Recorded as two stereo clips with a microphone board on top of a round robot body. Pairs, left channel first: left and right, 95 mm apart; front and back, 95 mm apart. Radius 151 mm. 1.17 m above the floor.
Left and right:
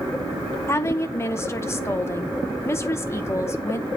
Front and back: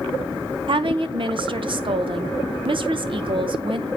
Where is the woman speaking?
150° left, 0.7 m.